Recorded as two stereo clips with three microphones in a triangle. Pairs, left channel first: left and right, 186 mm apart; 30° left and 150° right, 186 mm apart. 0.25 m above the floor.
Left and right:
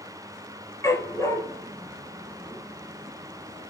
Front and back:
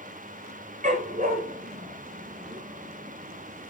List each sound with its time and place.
0.8 s a dog barking: 165° left, 2.5 m